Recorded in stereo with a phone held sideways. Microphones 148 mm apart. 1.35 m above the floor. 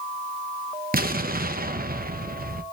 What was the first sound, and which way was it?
An explosion, 85° right.